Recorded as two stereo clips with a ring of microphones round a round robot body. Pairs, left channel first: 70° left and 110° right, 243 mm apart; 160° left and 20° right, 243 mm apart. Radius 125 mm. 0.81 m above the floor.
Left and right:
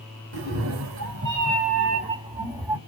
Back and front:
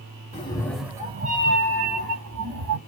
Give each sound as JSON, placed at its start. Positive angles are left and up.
{"t": 0.3, "sound": "a cat meowing", "azimuth_deg": -140, "distance_m": 0.8}